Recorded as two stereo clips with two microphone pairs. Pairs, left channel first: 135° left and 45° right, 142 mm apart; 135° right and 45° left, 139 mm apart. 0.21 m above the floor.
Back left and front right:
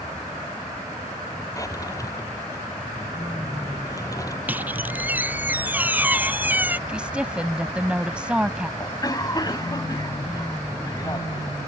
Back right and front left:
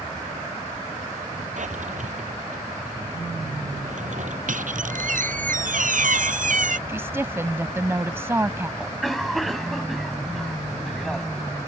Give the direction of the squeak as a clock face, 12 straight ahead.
11 o'clock.